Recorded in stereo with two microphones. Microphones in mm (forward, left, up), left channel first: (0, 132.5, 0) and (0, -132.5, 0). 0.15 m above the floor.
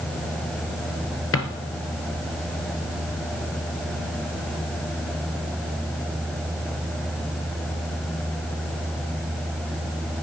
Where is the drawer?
55° left (ahead or behind), 1.5 m.